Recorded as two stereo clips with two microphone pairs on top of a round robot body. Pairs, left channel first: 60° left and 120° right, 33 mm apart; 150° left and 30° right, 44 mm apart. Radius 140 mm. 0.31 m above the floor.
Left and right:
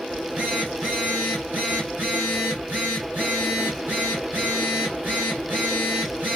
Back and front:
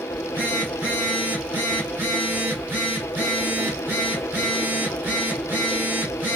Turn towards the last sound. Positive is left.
turn(degrees=-80)